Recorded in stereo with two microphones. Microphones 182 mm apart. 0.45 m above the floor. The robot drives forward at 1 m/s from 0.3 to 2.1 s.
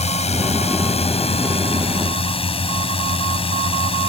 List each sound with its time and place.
0.0 s a drone: 35° left (ahead or behind); by 4.1 s 30° left (ahead or behind)